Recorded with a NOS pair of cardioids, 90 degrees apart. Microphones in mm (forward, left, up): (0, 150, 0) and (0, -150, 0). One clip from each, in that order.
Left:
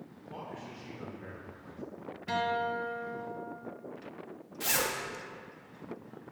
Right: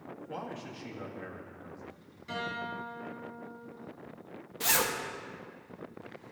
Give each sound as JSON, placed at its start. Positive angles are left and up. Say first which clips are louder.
{"t": 0.3, "sound": "a man speaking", "louder": "right 2 dB", "azimuth_deg": -65, "distance_m": 1.8}
{"t": 2.3, "sound": "a guitar", "louder": "left 6 dB", "azimuth_deg": 65, "distance_m": 2.0}
{"t": 4.6, "sound": "a zipper", "louder": "right 2 dB", "azimuth_deg": -20, "distance_m": 0.9}